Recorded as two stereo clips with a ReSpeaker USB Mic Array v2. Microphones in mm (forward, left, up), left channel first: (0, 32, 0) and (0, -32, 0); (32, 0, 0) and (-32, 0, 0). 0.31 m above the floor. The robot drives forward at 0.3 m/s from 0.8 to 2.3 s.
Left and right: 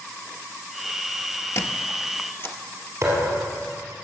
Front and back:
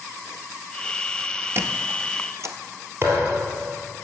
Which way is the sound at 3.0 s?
130° right.